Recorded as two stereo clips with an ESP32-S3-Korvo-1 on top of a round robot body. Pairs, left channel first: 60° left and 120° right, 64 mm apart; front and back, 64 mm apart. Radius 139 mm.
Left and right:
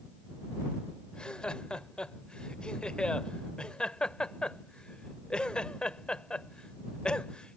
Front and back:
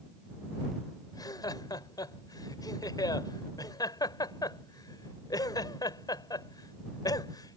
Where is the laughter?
15° right.